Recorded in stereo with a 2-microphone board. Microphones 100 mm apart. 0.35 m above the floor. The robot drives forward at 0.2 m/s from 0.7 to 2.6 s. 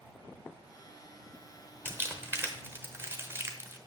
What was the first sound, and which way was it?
Crumpling, 20° right (ahead or behind).